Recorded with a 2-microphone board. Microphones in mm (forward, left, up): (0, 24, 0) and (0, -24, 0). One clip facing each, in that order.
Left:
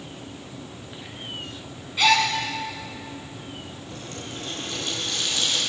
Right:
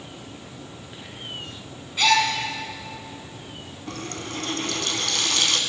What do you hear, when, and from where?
2.0 s a gasp: 5° left (ahead or behind), 3.5 m
3.9 s a running tap: 70° right (ahead or behind), 2.5 m